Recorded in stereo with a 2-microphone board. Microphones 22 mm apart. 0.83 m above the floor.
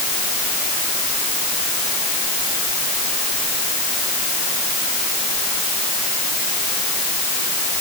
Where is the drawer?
I don't hear a drawer.